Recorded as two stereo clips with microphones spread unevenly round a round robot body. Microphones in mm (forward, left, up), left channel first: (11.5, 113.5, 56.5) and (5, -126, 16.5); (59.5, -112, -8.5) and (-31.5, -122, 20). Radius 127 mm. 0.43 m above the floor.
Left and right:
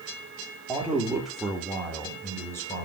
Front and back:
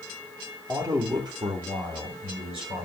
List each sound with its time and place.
0.7 s a man speaking: 130° right, 1.2 m; by 2.9 s 170° left, 1.8 m